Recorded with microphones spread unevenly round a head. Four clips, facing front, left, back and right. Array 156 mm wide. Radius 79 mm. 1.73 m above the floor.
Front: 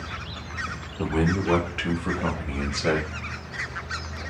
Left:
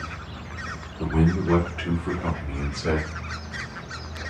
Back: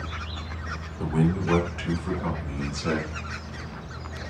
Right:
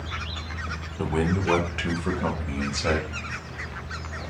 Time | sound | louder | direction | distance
1.0 | a man speaking | left 2 dB, front 1 dB | 65° right | 1.7 m